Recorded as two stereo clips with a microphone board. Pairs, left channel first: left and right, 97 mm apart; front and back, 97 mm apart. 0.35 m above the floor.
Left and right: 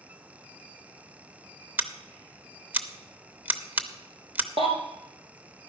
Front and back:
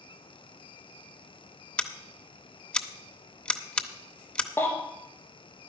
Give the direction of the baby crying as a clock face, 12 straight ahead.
2 o'clock.